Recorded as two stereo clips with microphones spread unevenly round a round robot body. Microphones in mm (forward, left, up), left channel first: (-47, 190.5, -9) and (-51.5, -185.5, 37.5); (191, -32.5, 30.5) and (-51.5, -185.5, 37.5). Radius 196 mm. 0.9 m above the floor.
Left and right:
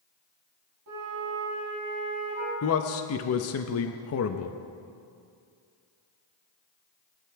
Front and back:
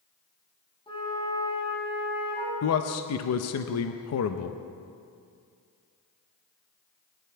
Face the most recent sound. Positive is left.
turn(degrees=50)